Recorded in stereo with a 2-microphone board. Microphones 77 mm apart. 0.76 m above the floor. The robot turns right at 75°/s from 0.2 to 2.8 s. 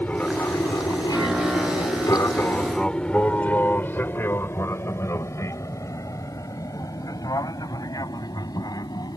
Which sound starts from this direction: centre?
An aircraft, at 0.0 s.